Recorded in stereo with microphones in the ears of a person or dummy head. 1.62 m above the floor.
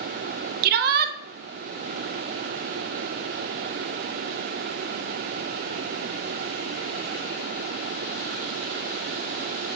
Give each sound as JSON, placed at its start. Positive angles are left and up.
{"t": 0.6, "sound": "a shout", "side_deg": -55, "distance_m": 0.6}